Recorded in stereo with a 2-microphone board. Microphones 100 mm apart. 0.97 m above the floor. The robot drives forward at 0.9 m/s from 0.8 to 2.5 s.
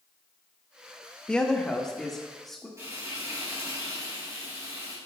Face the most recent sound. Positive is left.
turn(degrees=-30)  # may be behind; listen again after turning